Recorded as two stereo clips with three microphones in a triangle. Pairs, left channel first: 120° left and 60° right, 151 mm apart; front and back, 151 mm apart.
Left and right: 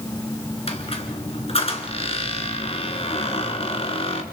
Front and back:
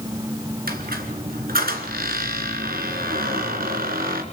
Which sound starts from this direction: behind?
A squeak, at 0.7 s.